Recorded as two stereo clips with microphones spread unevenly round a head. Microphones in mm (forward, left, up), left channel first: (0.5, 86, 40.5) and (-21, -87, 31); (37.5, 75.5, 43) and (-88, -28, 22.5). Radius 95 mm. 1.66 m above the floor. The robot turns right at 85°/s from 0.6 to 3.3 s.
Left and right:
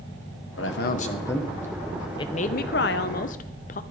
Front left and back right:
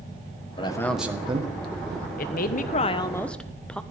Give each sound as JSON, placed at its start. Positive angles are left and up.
{"t": 0.6, "sound": "a man speaking", "azimuth_deg": 100, "distance_m": 1.4}
{"t": 2.2, "sound": "a woman speaking", "azimuth_deg": 20, "distance_m": 0.7}